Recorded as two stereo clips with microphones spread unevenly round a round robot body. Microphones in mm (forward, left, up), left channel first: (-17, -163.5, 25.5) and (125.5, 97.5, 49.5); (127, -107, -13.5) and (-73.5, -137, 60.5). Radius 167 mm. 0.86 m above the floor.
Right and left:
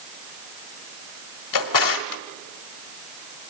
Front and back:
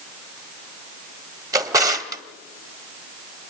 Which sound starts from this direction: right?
A drawer, at 1.5 s.